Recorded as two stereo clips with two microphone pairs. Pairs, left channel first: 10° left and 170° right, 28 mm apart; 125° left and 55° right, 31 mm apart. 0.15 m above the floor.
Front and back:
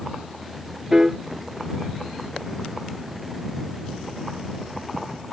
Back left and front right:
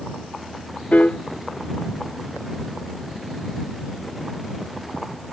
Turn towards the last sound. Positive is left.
turn(degrees=130)